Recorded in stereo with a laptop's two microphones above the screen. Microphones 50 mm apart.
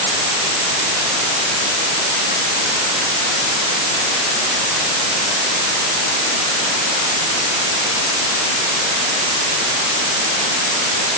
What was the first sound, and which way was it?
Only background noise.